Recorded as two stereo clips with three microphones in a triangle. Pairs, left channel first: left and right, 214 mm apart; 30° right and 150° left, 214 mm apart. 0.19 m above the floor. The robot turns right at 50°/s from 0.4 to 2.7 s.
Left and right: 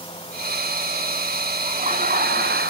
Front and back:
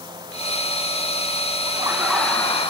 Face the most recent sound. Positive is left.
turn(degrees=-90)